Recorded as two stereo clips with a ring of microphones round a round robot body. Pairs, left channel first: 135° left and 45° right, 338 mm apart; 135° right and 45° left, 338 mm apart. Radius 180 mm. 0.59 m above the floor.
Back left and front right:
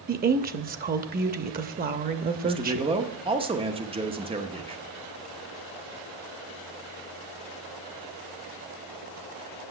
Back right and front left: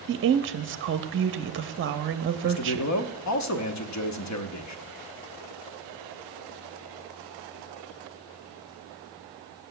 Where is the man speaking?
115° right, 1.0 m.